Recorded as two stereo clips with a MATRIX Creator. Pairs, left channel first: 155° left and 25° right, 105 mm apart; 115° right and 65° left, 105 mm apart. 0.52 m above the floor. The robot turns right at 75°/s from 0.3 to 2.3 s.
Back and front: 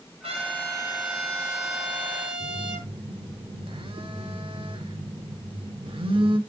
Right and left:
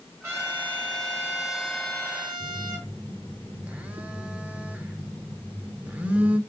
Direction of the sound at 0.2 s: Straight ahead.